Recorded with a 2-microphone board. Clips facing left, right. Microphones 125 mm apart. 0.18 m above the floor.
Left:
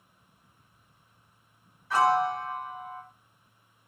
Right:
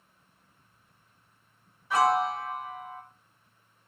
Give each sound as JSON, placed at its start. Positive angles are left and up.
{"t": 1.9, "sound": "a piano", "side_deg": -15, "distance_m": 1.7}